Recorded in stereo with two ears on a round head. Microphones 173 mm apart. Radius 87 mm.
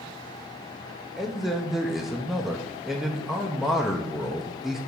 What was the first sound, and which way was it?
A man speaking, centre (ahead or behind).